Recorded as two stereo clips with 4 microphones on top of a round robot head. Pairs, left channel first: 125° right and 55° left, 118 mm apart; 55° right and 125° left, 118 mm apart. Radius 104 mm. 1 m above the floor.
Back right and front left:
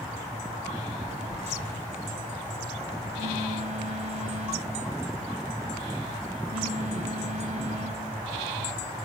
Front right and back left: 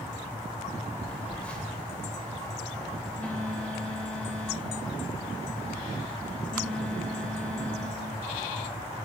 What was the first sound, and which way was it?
A phone buzzing, 25° left.